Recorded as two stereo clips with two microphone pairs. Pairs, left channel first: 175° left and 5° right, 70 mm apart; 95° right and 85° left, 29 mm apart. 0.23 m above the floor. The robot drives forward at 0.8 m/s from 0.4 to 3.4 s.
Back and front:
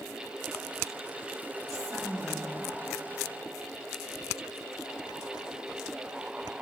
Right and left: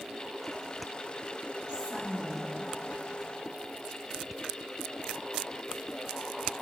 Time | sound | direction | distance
1.7 | a woman speaking | 30° left | 8 m